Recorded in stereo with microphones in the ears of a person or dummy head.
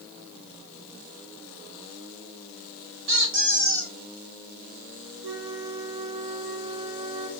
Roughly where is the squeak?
Right.